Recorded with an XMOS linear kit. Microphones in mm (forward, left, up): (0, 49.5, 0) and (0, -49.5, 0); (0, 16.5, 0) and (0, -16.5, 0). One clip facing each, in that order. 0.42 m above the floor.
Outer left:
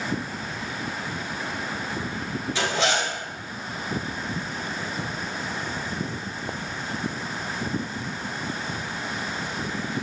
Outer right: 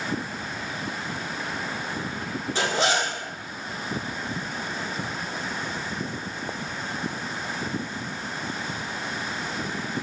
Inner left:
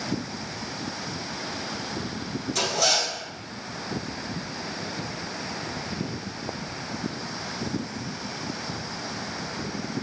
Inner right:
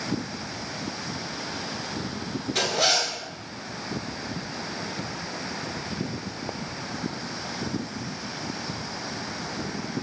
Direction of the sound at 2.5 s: 40° right (ahead or behind).